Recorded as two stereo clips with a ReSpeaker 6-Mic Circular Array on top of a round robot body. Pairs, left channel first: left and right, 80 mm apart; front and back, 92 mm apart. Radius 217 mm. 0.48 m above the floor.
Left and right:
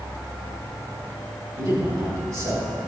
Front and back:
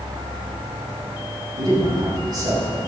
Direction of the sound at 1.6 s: 140° right.